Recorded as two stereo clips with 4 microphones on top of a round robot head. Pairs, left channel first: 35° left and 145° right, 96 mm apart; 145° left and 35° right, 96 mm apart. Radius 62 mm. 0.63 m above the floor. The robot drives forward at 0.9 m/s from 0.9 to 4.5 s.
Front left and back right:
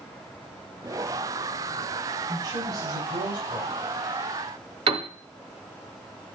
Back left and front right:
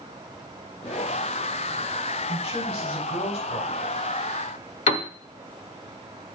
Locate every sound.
2.3 s a man speaking: 175° left, 2.5 m
4.9 s a piano: 175° left, 0.8 m